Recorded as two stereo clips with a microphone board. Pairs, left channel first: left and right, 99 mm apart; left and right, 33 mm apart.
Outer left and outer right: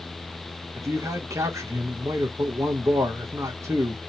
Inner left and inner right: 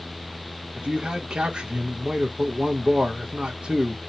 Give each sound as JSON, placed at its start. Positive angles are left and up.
{"t": 0.8, "sound": "a man speaking", "side_deg": -30, "distance_m": 0.6}